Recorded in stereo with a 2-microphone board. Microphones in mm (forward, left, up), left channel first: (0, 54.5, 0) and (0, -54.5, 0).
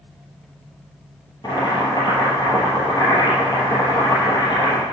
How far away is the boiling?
About 3 m.